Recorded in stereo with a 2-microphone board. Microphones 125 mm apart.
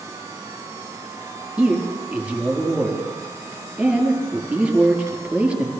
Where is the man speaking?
10° right (ahead or behind), 4.5 m.